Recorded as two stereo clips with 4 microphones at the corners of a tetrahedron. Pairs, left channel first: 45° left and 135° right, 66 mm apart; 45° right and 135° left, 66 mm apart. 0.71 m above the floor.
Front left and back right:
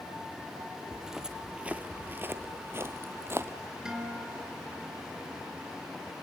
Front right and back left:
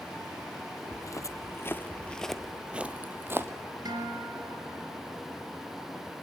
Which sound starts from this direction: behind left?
A guitar, at 3.9 s.